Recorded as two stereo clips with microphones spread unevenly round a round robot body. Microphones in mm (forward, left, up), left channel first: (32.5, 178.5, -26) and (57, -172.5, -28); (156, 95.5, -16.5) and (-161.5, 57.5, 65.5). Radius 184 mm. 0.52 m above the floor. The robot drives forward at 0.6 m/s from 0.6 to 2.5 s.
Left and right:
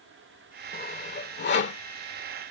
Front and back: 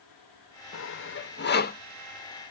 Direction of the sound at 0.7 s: 30° left.